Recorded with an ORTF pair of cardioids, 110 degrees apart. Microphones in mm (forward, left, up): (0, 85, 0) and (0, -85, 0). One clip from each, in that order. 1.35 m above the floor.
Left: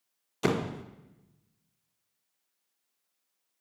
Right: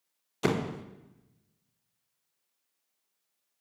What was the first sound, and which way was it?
A door slam, straight ahead.